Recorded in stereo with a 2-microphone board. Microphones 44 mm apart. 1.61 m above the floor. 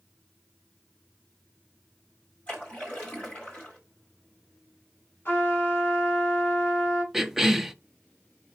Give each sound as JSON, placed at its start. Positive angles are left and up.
{"t": 2.5, "sound": "a splash", "side_deg": 25, "distance_m": 3.5}
{"t": 5.2, "sound": "a trumpet", "side_deg": 50, "distance_m": 6.5}
{"t": 7.1, "sound": "a cough", "side_deg": -10, "distance_m": 0.8}